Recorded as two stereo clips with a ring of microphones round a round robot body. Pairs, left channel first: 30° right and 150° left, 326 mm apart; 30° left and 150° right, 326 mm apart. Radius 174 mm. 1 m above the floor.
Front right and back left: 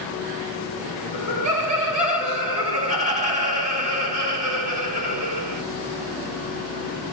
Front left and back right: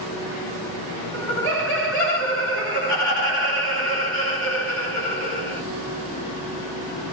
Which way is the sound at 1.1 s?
145° right.